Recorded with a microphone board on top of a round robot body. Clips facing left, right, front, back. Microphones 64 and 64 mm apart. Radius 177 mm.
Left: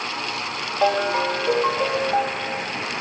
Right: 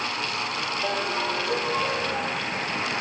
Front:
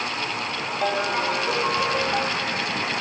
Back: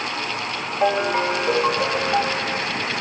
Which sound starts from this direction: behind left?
A ringtone, at 0.8 s.